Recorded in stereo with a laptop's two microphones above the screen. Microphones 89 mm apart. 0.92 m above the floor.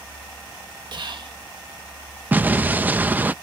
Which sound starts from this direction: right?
Whispering, at 0.9 s.